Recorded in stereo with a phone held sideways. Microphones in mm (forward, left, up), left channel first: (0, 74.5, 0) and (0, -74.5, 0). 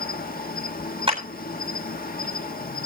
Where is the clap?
40° right (ahead or behind), 8 m.